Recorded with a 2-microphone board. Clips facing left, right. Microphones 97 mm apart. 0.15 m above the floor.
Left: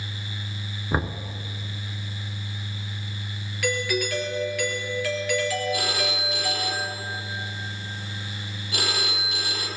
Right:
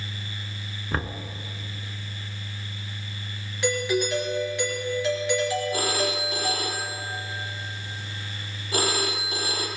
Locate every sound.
0.9 s knocking: 15° left (ahead or behind), 1.2 m
3.6 s a doorbell: 25° right (ahead or behind), 3 m
5.7 s a phone ringing: 40° right (ahead or behind), 3 m